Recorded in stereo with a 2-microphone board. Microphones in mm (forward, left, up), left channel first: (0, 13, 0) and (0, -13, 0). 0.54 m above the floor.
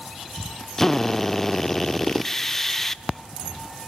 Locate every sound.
0.8 s a drill: 15° left (ahead or behind), 0.6 m